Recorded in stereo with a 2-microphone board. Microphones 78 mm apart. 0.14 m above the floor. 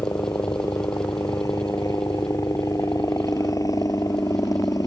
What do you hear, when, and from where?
0.0 s a helicopter: 45° left (ahead or behind)